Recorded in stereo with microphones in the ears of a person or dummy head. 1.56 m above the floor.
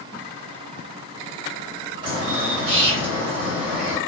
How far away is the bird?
About 1.0 m.